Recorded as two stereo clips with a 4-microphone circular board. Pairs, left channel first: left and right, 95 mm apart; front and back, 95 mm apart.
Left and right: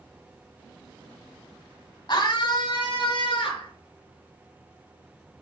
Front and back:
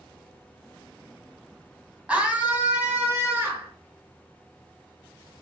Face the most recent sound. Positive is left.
turn(degrees=110)